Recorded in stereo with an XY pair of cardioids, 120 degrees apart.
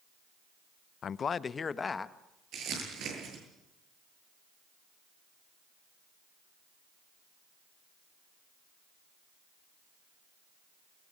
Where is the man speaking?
45° left, 0.5 m; by 2.2 s 25° left, 1.4 m.